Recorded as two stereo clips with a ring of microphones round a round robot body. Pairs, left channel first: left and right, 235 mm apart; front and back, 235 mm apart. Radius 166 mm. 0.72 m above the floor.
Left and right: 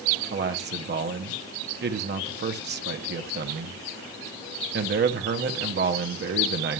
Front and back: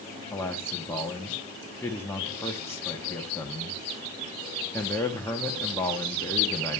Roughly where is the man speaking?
Right.